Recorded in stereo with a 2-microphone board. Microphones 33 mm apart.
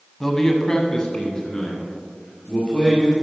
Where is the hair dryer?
No hair dryer in this recording.